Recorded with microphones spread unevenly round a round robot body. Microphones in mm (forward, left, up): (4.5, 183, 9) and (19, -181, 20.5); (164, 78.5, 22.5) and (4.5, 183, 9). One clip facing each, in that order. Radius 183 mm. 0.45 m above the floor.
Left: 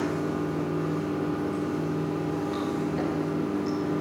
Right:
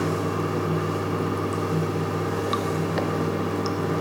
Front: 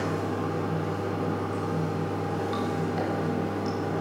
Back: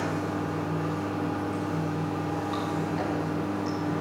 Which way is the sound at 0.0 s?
90° right.